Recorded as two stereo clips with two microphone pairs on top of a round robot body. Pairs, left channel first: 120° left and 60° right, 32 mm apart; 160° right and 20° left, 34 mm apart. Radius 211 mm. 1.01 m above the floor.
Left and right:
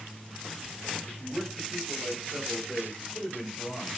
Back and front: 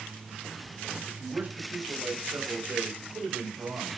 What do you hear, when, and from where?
1.1 s a man speaking: 10° left, 6.5 m; by 4.0 s 30° left, 5.5 m